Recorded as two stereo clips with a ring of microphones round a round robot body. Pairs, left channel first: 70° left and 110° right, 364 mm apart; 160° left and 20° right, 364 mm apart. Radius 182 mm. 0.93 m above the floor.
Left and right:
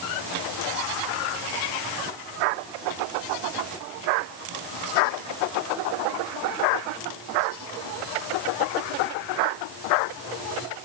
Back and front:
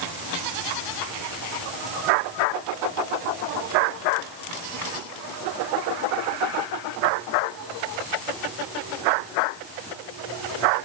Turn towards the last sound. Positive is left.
No sound to turn to.